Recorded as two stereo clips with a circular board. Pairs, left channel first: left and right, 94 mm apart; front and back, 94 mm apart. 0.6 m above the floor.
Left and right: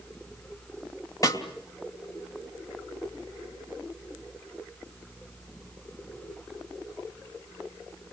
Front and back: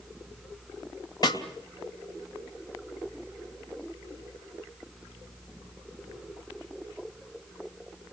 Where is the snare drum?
40° left, 2.5 m.